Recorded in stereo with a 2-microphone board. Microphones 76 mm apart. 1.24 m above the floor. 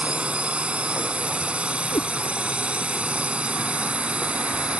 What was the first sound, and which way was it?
A drone, 15° right (ahead or behind).